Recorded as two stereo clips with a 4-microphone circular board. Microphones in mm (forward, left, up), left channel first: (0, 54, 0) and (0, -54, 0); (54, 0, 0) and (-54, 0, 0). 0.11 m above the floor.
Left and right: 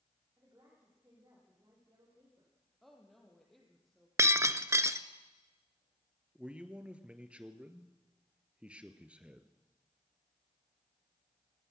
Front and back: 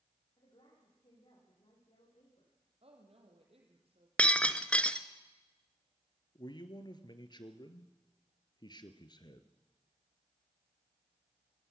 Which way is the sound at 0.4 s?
30° right.